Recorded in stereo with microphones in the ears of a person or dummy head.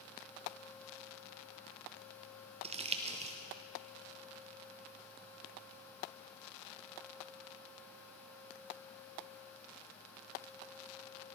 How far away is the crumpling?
About 0.5 m.